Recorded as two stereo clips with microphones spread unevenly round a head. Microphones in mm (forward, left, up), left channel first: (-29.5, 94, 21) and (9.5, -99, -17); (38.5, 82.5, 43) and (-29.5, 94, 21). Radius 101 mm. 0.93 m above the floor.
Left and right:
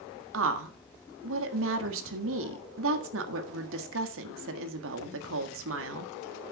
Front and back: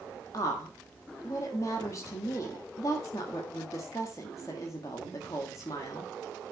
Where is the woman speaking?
75° right, 1.6 m.